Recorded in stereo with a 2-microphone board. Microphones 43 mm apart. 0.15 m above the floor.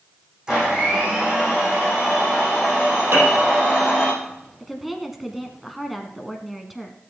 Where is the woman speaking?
5° right (ahead or behind), 1.2 m.